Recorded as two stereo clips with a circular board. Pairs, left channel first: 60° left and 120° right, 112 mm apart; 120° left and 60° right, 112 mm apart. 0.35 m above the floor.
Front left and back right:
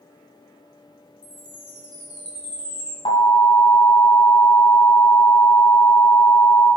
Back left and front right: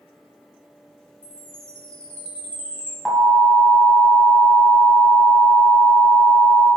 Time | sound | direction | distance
1.2 | a chime | 160° right | 2 m
3.0 | an alarm | 30° left | 2.5 m